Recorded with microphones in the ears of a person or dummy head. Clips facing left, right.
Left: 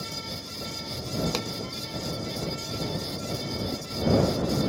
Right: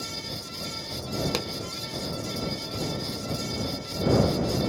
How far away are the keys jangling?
I don't hear keys jangling.